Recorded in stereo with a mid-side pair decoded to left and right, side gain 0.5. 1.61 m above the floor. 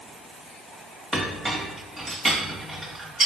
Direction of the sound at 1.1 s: 10° right.